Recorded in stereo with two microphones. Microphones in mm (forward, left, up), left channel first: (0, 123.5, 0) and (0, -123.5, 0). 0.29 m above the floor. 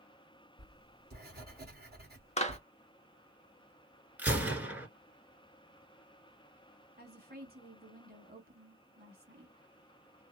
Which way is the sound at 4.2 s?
5° right (ahead or behind).